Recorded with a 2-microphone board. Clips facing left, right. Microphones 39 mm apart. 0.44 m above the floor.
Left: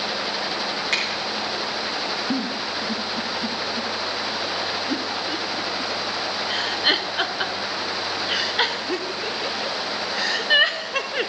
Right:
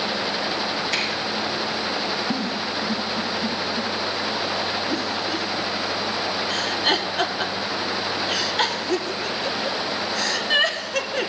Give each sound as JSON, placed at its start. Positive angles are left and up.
{"t": 0.9, "sound": "a finger snap", "side_deg": 55, "distance_m": 5.5}
{"t": 2.3, "sound": "a giggle", "side_deg": 15, "distance_m": 0.9}